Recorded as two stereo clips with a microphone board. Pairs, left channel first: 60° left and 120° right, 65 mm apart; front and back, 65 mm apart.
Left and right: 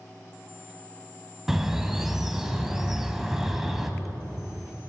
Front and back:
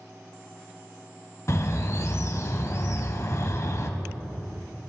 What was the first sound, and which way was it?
A bird, 35° right.